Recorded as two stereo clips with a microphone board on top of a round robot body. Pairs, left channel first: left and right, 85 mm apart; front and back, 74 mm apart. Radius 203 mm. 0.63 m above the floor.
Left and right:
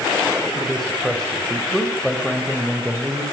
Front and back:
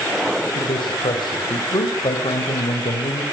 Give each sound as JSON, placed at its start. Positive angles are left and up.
{"t": 0.6, "sound": "a man speaking", "azimuth_deg": 5, "distance_m": 5.0}